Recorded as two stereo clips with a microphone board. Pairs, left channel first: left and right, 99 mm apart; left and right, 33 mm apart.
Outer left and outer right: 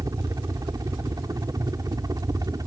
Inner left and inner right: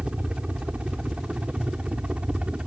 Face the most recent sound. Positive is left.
turn(degrees=-40)  # may be behind; listen again after turning